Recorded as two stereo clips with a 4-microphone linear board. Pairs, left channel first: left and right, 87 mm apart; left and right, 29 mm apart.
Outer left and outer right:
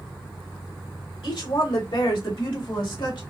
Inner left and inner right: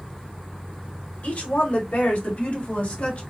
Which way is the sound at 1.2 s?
70° left (ahead or behind).